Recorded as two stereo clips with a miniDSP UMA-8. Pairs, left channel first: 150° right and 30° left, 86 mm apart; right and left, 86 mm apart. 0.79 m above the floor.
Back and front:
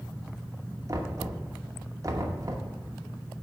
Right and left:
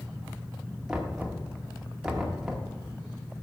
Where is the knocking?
10° left, 1.0 m.